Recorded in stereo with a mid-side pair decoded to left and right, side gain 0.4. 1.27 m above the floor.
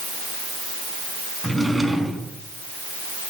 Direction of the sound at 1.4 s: 15° right.